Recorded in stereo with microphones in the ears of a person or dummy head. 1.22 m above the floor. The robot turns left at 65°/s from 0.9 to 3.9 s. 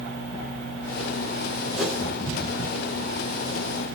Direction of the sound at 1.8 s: 5° right (ahead or behind).